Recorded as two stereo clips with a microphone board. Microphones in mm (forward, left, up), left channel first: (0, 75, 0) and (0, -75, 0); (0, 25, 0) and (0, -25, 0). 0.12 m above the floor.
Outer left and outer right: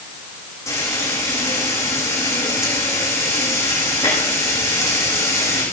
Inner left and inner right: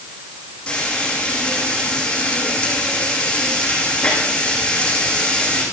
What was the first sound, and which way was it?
Frying, 20° left (ahead or behind).